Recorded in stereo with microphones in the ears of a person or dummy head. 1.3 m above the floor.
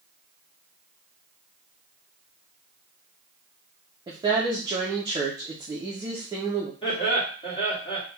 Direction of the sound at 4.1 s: 20° right (ahead or behind).